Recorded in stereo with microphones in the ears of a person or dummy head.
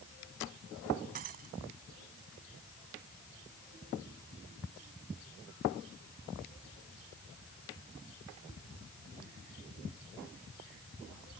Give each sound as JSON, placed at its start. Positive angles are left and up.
{"t": 1.1, "sound": "breaking glass", "side_deg": -40}